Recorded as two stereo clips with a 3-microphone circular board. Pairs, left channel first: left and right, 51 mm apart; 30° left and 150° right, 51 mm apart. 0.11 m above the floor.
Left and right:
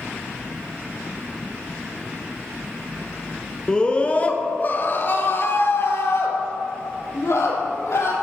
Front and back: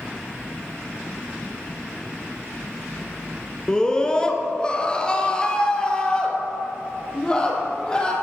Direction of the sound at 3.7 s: 65° left.